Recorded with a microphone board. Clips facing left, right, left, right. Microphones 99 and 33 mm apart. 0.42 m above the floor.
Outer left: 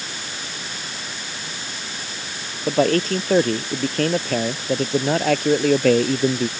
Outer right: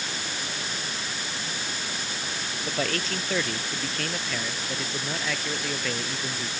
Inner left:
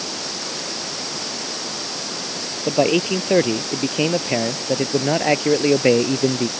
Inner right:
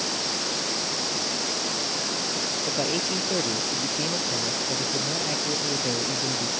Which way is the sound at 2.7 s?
40° left (ahead or behind).